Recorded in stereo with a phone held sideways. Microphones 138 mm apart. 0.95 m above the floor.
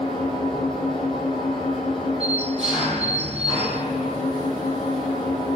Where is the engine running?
Centre (ahead or behind), 9.5 m.